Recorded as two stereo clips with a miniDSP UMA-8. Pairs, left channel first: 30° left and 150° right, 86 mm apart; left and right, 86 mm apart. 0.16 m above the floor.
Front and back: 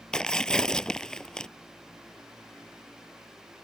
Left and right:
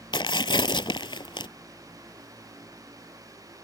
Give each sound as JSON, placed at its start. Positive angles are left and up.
{"t": 0.1, "sound": "tearing paper", "azimuth_deg": 110}